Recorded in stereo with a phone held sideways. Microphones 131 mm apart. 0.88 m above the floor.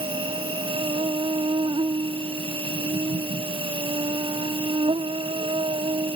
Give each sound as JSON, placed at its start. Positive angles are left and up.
{"t": 0.0, "sound": "an insect", "side_deg": -45}